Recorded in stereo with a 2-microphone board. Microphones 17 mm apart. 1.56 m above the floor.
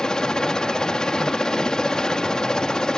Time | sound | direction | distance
0.0 | a helicopter | 50° left (ahead or behind) | ?